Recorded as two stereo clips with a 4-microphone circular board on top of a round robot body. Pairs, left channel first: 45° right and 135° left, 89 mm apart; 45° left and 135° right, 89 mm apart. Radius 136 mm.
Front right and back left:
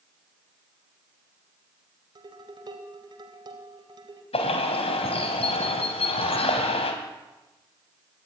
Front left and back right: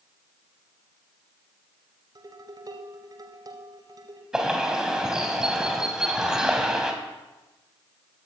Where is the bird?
50° right, 3.5 m.